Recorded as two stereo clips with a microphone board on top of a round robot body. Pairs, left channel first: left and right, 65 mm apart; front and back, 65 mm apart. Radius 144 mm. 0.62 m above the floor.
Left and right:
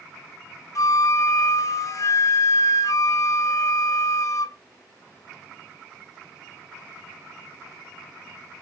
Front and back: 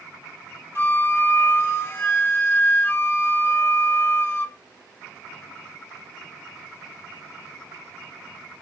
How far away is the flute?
About 0.5 m.